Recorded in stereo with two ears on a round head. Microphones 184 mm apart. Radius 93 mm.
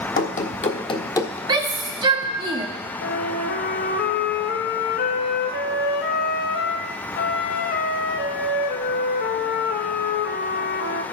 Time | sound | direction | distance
0.2 | running footsteps | 45° left (ahead or behind) | 1.4 m
1.5 | a shout | 20° right (ahead or behind) | 1.2 m
3.0 | a flute | 55° left (ahead or behind) | 1.0 m